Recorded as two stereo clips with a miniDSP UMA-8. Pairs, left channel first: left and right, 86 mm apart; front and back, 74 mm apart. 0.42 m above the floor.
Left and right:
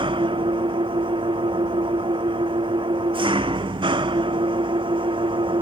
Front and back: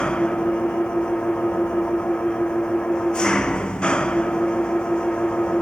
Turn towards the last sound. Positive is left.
turn(degrees=-80)